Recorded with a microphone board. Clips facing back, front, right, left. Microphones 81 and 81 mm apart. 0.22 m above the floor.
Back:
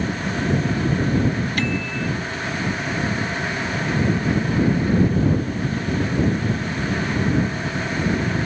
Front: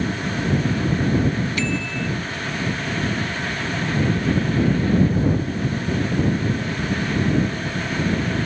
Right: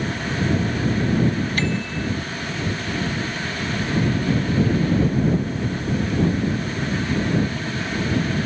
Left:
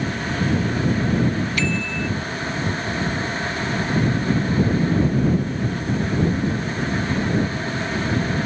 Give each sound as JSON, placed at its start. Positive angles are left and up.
{"t": 1.6, "sound": "a bicycle bell", "azimuth_deg": -140}